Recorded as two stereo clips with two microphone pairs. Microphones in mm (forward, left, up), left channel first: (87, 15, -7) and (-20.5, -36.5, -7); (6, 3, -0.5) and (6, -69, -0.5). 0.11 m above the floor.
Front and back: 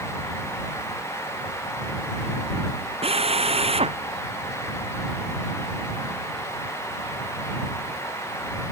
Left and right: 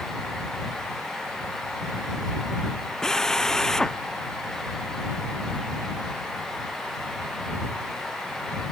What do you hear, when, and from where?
3.0 s a drill: 175° left